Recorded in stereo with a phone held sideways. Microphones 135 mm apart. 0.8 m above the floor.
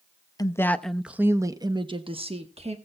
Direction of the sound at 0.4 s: 25° left (ahead or behind).